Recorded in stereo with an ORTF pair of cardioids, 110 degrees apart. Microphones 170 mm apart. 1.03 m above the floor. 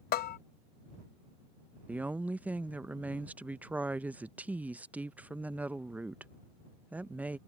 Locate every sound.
0.1 s a bell: 60° left
1.9 s a woman speaking: 10° right